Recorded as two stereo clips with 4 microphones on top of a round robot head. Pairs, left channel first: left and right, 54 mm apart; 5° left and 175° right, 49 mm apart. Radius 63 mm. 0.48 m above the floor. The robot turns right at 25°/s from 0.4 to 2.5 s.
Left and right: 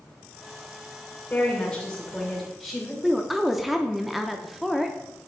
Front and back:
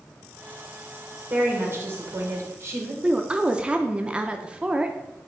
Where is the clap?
No clap in this recording.